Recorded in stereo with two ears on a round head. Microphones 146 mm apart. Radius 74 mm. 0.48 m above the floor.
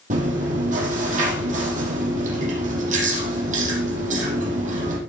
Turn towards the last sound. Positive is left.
turn(degrees=-45)  # may be behind; listen again after turning